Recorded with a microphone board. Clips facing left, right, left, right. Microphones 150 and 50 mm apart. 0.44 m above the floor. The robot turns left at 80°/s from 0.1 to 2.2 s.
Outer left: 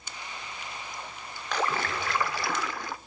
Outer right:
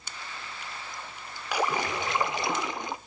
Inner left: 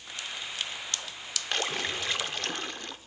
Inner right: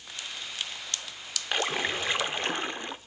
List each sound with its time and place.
1.5 s a splash: 10° right (ahead or behind), 0.8 m; by 3.0 s 20° right (ahead or behind), 0.8 m